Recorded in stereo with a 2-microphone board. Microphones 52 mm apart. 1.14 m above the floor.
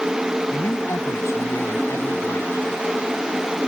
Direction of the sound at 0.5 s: 85° left.